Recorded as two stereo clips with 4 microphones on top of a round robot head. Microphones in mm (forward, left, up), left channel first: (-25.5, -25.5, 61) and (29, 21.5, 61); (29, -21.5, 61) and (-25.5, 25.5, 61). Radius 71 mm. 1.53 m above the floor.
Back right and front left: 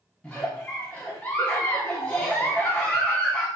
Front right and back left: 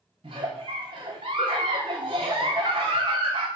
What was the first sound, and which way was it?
A giggle, 145° left.